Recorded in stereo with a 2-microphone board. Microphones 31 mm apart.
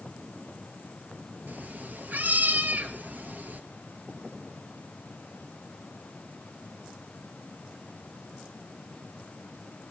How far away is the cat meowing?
About 1.8 m.